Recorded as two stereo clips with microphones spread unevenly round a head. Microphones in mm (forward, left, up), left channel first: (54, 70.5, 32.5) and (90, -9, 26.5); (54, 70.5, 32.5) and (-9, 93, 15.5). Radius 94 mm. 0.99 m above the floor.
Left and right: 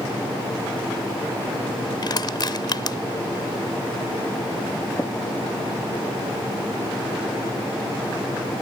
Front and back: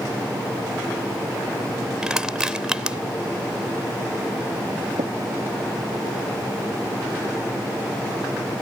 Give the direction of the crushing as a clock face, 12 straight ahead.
9 o'clock.